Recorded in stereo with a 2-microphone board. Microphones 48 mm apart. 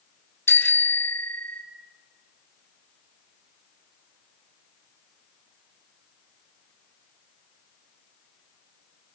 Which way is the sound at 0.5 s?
75° left (ahead or behind).